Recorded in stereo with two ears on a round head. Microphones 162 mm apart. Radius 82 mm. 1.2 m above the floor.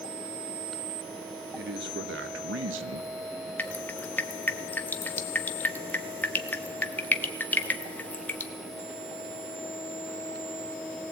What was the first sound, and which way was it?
A man speaking, 60° right (ahead or behind).